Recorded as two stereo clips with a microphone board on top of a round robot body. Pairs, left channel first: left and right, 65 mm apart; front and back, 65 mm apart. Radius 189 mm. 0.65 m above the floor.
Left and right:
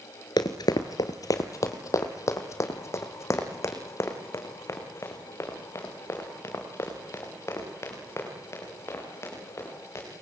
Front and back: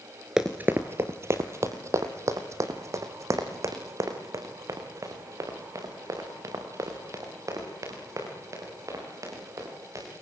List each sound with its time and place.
0.4 s running footsteps: 95° left, 0.7 m; by 10.0 s 140° left, 10 m